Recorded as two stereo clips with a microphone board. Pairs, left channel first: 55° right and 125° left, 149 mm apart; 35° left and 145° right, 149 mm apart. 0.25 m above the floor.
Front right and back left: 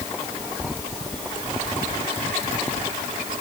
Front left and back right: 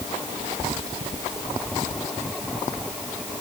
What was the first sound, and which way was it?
Only background noise.